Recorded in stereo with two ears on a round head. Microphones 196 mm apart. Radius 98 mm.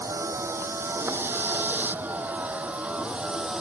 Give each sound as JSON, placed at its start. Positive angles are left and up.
{"t": 0.0, "sound": "a vehicle", "side_deg": -15}